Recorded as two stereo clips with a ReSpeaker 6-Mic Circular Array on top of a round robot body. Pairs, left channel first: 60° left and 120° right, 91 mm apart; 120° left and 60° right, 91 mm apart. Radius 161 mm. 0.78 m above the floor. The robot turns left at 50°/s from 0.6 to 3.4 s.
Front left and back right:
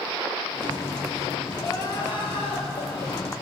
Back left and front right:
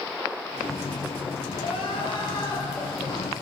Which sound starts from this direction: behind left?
Crying, at 1.6 s.